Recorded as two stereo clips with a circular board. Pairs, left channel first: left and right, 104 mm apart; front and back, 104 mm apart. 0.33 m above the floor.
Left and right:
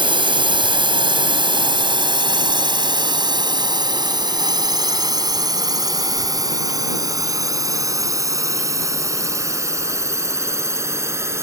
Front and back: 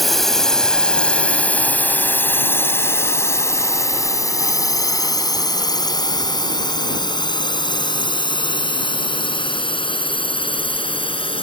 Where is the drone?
90° right; by 11.4 s 30° right.